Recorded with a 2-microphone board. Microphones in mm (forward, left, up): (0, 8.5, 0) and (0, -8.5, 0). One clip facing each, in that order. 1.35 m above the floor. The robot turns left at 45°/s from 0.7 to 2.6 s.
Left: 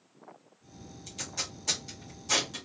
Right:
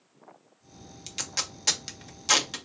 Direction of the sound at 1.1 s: 60° right (ahead or behind).